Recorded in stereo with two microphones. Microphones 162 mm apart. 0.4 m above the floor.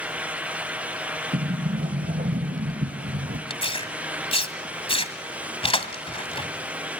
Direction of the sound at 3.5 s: 35° left (ahead or behind).